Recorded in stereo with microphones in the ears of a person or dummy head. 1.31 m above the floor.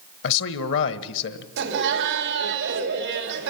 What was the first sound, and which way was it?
A man speaking, 60° left (ahead or behind).